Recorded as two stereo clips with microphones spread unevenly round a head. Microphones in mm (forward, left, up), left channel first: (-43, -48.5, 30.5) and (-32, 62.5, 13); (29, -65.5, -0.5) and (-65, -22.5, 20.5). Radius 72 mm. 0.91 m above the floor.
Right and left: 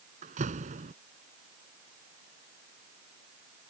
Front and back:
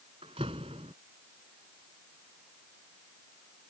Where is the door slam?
100° left.